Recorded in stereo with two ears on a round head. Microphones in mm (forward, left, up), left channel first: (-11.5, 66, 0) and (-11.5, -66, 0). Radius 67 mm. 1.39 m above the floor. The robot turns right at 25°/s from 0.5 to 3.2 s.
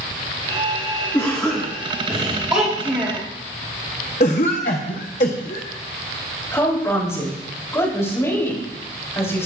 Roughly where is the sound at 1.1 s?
Behind.